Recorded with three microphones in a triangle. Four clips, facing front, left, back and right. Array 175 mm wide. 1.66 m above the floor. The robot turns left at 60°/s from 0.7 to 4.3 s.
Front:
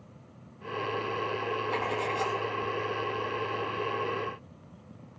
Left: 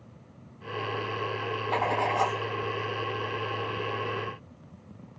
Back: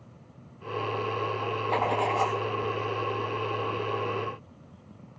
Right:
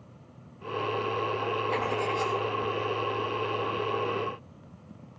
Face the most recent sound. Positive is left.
turn(degrees=0)